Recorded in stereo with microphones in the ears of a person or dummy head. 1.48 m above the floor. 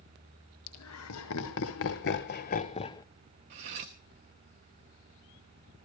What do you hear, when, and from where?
0.7 s laughter: 80° left, 1.9 m; by 3.0 s 15° left (ahead or behind), 0.9 m
3.5 s cutlery clinking: 35° right (ahead or behind), 1.0 m